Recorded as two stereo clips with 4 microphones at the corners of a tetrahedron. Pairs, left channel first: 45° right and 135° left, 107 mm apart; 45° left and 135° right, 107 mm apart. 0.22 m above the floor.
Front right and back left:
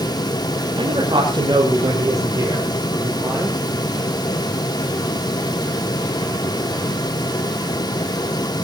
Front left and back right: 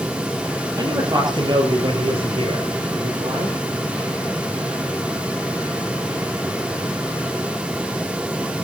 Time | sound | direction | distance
0.8 | a man speaking | 175° left | 6.5 m